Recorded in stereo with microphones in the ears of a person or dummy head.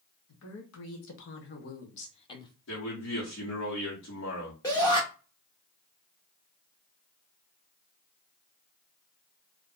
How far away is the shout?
About 0.6 m.